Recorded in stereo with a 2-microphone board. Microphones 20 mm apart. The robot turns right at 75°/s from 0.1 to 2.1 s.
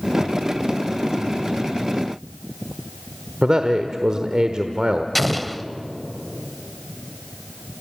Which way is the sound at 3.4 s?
40° right (ahead or behind).